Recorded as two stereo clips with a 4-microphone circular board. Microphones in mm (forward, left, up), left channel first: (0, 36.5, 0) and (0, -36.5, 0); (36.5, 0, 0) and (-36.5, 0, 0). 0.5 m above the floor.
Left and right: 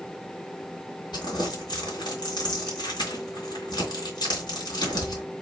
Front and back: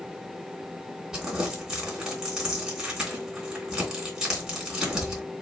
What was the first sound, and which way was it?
Crumpling, 100° left.